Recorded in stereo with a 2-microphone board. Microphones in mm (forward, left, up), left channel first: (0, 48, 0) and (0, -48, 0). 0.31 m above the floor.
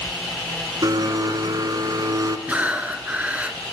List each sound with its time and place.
0.8 s a blender: 45° right (ahead or behind), 0.7 m
2.5 s breathing: 15° right (ahead or behind), 0.7 m